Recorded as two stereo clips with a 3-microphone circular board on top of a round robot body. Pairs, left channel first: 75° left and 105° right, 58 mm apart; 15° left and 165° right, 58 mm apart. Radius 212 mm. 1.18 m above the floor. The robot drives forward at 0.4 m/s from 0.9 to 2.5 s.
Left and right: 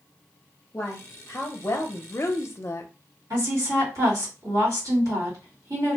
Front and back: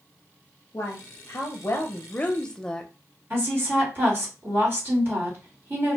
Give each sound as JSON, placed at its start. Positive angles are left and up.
{"t": 0.7, "sound": "a woman speaking", "azimuth_deg": 25, "distance_m": 0.9}
{"t": 3.3, "sound": "a woman speaking", "azimuth_deg": -120, "distance_m": 1.6}